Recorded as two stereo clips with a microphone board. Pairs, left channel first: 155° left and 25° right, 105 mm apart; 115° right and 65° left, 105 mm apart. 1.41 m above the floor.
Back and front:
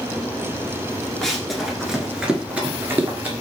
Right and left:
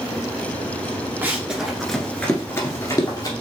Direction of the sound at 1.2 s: 80° left.